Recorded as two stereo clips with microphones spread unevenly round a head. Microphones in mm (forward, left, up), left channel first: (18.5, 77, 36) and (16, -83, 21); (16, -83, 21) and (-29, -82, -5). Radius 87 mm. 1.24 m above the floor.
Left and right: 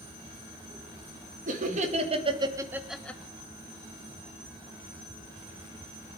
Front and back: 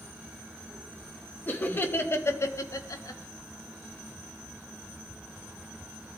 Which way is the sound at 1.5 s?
55° right.